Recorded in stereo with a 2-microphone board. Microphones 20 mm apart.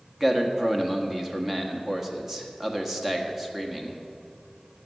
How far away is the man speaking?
About 1.4 m.